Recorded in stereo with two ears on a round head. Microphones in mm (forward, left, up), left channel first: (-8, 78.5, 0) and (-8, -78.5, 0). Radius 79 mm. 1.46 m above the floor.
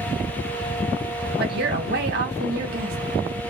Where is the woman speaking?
60° right (ahead or behind), 1.4 m.